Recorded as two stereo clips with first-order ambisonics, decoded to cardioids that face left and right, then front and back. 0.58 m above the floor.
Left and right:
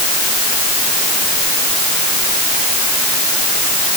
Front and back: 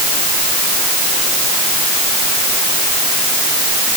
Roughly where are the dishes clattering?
I don't hear dishes clattering.